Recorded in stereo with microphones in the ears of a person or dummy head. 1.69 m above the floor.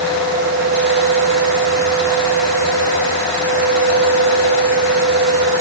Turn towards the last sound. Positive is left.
No sound to turn to.